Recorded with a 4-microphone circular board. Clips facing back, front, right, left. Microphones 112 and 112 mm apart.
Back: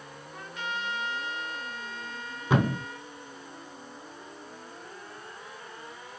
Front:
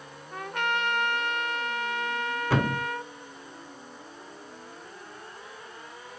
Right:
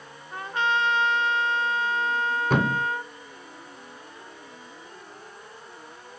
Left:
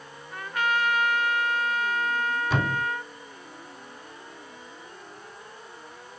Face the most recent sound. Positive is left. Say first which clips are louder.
# back 2 dB, right 6 dB
turn(degrees=-110)